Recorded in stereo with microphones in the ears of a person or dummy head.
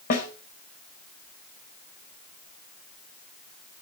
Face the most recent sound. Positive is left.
turn(degrees=45)  # may be behind; listen again after turning